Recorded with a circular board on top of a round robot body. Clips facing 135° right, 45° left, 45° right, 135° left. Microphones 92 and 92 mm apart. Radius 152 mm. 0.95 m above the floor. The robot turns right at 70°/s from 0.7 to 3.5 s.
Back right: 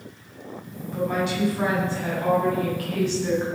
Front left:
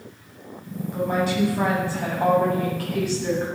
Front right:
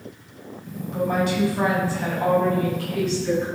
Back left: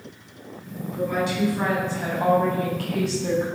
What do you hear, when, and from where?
0.9 s a woman speaking: 30° right, 9 m; by 3.5 s 155° left, 9 m